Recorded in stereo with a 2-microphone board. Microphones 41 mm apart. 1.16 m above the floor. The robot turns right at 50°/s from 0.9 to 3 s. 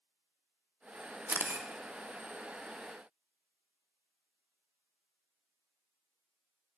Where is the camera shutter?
60° right (ahead or behind), 0.5 m; by 1.7 s 75° right (ahead or behind), 0.5 m.